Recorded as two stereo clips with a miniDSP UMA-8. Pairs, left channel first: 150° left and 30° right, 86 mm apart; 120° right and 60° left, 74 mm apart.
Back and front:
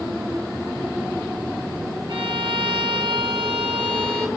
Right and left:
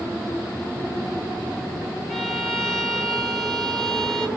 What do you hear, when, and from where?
2.1 s a violin: 35° right, 1.4 m